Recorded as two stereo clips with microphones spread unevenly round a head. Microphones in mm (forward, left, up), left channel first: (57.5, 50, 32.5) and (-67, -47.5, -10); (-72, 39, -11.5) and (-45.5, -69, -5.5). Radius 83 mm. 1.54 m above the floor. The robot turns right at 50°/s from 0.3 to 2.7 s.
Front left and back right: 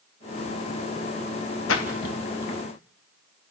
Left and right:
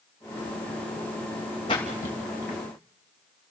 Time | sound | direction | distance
1.7 | a splash | 40° left | 3 m